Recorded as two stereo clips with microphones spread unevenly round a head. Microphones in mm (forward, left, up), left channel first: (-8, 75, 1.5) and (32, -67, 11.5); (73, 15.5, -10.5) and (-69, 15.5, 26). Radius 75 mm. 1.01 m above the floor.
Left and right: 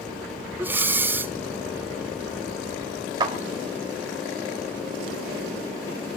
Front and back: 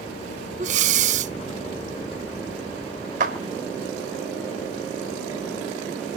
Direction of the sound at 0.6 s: 150° right.